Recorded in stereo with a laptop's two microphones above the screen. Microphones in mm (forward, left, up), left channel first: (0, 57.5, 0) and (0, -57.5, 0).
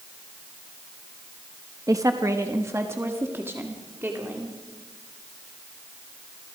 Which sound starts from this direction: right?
A woman speaking, at 1.9 s.